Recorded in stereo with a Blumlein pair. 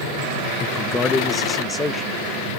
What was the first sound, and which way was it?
A man speaking, 20° left.